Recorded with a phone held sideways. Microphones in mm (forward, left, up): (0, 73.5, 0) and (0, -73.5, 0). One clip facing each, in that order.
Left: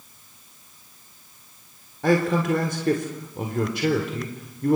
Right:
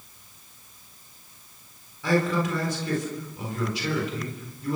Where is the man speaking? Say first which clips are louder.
Left 3 dB; 55° left (ahead or behind), 3.5 m.